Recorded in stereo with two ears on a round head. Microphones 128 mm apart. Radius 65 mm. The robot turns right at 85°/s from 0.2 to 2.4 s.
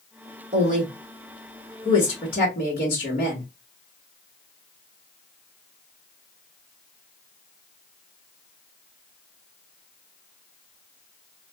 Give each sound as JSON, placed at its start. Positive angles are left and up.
{"t": 0.5, "sound": "a woman speaking", "side_deg": -70, "distance_m": 1.3}